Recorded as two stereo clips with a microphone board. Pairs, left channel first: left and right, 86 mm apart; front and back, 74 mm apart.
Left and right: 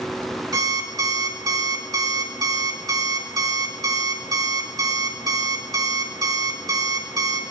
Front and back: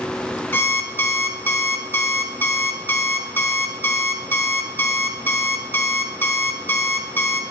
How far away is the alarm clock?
About 1.3 m.